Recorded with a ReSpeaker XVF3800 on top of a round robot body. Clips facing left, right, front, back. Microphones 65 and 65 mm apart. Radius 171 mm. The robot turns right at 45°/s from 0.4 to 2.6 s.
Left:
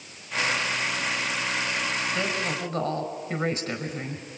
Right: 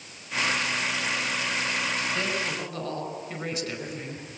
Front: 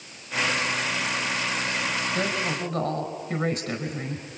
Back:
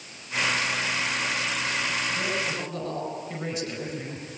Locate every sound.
2.1 s a woman speaking: 10° left, 4.5 m; by 4.3 s 30° left, 4.5 m